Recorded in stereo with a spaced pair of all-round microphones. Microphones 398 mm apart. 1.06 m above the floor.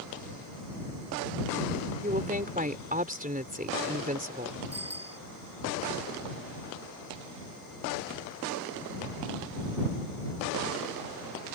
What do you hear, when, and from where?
2.0 s a woman speaking: 20° right (ahead or behind)
4.7 s a bicycle bell: 40° right (ahead or behind)